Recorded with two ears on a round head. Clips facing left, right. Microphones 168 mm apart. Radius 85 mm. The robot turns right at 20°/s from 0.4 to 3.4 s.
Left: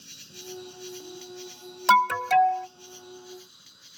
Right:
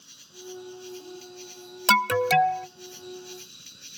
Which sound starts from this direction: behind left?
An insect, at 0.0 s.